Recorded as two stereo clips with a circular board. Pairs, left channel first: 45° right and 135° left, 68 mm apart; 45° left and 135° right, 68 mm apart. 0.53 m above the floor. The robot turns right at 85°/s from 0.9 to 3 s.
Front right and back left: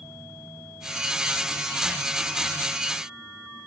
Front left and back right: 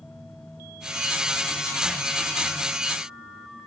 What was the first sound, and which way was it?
Only background noise.